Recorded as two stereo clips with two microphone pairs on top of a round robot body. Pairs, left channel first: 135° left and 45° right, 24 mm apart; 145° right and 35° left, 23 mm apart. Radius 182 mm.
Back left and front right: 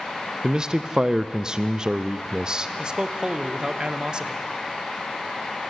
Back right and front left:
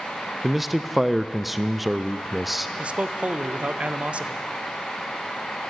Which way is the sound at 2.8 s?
10° left.